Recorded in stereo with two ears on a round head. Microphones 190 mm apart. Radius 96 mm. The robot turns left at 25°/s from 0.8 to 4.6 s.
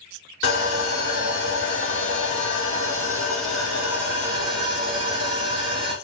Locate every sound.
0.4 s sawing: 70° left, 1.4 m; by 6.0 s 25° right, 1.4 m